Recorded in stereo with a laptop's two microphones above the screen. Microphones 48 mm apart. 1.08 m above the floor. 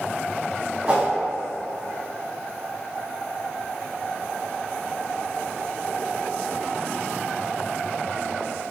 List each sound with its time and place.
0.9 s a whoosh: 25° right (ahead or behind), 0.5 m